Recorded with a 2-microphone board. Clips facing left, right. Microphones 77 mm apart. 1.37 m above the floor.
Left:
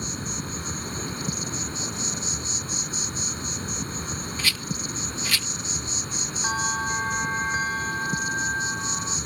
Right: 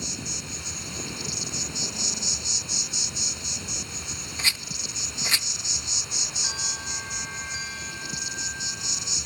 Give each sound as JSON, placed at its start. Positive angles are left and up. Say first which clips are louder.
{"t": 0.0, "sound": "an insect", "louder": "left 4 dB", "side_deg": 35}
{"t": 4.4, "sound": "a rattle", "louder": "even", "side_deg": -25}
{"t": 6.4, "sound": "a bell", "louder": "left 13 dB", "side_deg": 45}